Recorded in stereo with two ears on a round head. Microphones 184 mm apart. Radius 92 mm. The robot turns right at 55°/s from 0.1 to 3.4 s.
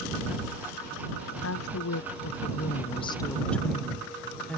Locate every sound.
1.4 s a woman speaking: 65° left; by 4.6 s 175° left